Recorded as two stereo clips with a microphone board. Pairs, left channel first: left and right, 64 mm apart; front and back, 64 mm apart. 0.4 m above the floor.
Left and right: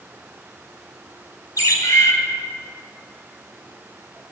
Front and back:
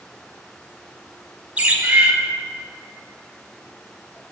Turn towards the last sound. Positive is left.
turn(degrees=110)